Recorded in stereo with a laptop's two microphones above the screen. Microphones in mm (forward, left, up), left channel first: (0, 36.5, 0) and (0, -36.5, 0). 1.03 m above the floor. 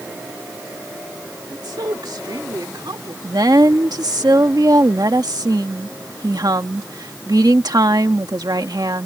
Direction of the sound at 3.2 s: 65° right (ahead or behind).